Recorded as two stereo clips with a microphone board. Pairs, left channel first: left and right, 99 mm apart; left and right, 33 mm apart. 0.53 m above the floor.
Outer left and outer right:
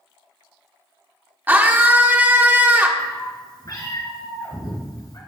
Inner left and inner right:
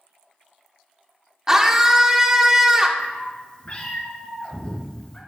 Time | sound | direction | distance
1.5 | a scream | 20° right (ahead or behind) | 1.3 m
3.0 | a cat meowing | 40° left (ahead or behind) | 3 m